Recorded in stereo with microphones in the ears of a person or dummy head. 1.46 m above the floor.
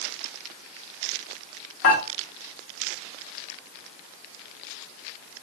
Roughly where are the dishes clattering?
Left.